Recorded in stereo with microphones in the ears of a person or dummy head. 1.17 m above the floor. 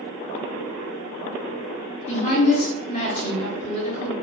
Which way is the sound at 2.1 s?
40° left (ahead or behind).